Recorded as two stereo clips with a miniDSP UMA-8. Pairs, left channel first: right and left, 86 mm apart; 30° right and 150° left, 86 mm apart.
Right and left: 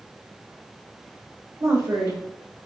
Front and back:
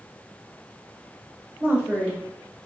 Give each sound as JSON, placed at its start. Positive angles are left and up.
{"t": 1.6, "sound": "a woman speaking", "azimuth_deg": 90, "distance_m": 1.2}